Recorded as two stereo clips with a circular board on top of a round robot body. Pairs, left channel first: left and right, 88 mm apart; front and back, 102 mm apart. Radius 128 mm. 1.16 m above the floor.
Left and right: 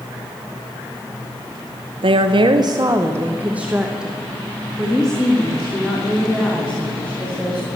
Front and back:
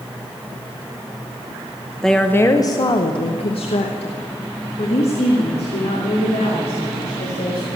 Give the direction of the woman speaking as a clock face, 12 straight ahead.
3 o'clock.